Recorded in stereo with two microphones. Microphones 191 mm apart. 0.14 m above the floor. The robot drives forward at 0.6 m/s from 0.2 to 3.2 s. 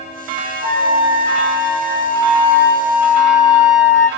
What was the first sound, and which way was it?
A flute, 30° left (ahead or behind).